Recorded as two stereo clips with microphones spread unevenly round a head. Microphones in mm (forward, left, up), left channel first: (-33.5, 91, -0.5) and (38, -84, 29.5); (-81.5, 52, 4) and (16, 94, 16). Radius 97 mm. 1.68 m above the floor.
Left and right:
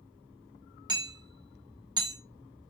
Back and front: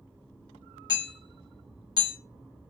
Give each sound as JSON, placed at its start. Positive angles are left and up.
{"t": 0.9, "sound": "hammering", "azimuth_deg": -105, "distance_m": 1.0}